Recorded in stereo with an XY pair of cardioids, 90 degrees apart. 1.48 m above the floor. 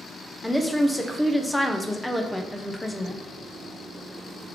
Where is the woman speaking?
10° left, 0.7 m.